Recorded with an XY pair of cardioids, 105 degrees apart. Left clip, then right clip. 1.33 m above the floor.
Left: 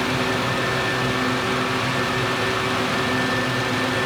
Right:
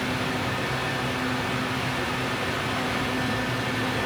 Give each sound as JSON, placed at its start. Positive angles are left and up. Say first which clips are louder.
{"t": 0.0, "sound": "a fan", "louder": "left 5 dB", "azimuth_deg": 70, "distance_m": 0.7}